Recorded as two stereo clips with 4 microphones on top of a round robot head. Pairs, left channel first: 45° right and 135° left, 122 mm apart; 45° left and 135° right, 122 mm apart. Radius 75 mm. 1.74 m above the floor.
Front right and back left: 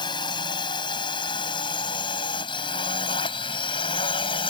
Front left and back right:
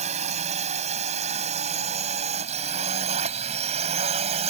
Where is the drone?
100° right; by 4.5 s 95° right.